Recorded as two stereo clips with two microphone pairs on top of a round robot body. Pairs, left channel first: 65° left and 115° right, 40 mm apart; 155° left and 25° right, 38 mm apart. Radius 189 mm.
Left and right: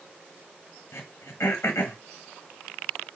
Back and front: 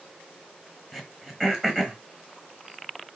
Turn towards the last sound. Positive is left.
turn(degrees=70)